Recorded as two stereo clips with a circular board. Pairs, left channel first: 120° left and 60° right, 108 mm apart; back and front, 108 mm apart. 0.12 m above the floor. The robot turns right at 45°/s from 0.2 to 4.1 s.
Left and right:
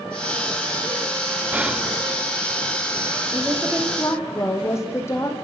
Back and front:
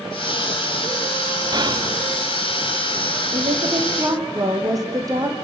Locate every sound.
1.5 s whispering: 10° left, 1.6 m; by 2.0 s 30° left, 1.6 m
3.3 s a woman speaking: 20° left, 5 m; by 5.3 s 55° left, 5 m